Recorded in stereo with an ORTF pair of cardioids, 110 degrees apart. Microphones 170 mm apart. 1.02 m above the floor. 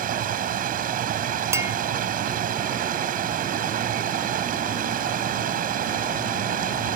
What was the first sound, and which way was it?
Running water, 55° right.